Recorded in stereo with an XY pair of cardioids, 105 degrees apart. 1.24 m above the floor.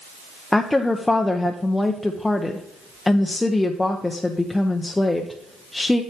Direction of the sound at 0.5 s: 15° left.